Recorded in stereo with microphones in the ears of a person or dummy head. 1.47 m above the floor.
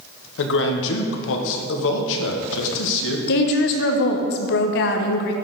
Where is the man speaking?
70° left (ahead or behind), 0.7 m.